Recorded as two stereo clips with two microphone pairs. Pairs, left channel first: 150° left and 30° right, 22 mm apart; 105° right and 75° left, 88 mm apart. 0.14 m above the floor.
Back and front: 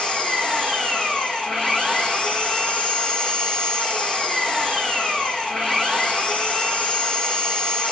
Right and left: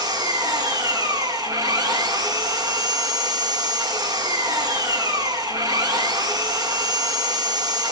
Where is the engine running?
115° left, 4 m.